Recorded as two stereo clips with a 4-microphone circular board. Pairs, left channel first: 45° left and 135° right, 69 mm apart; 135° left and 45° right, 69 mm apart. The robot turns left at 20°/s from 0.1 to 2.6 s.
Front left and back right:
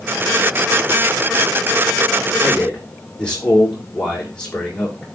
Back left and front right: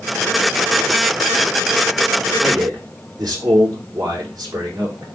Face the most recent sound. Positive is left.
turn(degrees=-30)